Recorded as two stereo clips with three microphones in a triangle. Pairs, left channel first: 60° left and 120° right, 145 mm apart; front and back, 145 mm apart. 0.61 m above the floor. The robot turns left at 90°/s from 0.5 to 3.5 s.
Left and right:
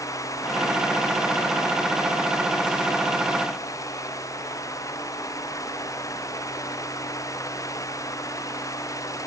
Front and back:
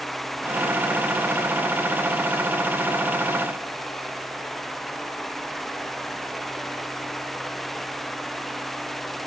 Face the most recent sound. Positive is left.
No sound to turn to.